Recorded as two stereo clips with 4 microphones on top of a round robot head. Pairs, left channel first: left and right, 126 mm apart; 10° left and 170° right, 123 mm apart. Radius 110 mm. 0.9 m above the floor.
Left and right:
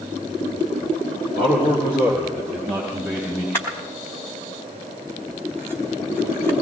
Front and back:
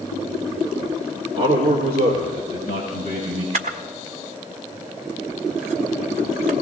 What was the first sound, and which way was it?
A man speaking, 140° left.